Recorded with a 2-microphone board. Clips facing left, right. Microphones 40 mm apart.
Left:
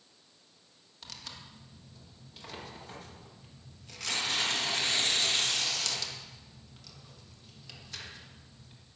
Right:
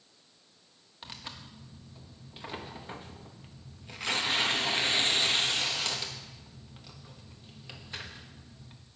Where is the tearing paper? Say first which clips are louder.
Right 3 dB; 25° right (ahead or behind), 1.1 m.